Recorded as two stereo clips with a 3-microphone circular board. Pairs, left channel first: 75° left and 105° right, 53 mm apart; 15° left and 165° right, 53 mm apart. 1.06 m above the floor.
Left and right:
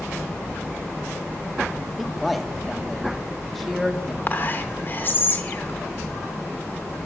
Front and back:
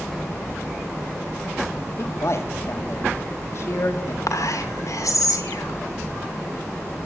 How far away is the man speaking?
About 1.9 m.